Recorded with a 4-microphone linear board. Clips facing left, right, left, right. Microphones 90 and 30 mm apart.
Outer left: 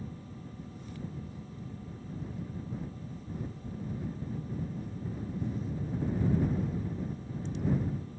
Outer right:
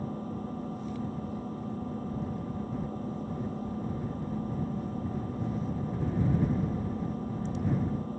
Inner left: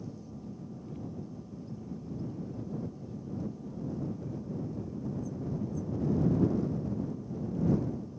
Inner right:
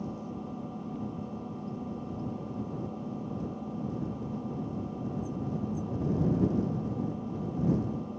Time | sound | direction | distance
0.0 | an engine running | 50° right (ahead or behind) | ?